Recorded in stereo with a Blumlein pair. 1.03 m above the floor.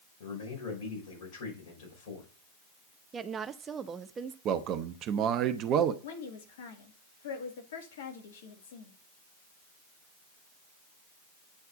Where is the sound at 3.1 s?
20° right, 0.8 m.